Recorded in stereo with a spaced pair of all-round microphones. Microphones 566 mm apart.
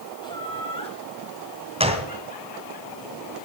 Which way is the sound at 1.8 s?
10° right (ahead or behind).